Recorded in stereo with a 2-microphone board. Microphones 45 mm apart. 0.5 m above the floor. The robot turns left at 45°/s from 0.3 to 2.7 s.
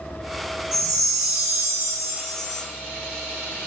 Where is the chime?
10° right (ahead or behind), 1.0 m; by 2.6 s 20° right (ahead or behind), 1.0 m.